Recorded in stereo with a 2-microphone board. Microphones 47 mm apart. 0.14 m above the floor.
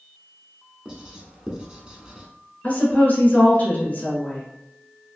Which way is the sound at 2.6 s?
35° left (ahead or behind).